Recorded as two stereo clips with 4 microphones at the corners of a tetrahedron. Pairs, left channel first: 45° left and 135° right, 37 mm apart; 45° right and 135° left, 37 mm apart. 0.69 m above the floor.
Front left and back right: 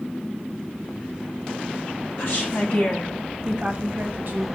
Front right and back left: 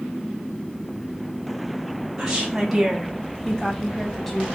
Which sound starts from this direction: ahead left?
A woman speaking, at 2.2 s.